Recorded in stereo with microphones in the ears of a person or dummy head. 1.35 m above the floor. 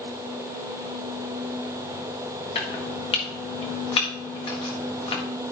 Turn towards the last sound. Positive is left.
turn(degrees=30)  # may be behind; listen again after turning